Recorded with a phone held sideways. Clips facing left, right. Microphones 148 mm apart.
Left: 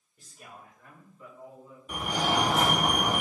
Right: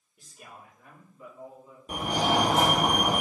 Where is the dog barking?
No dog barking in this recording.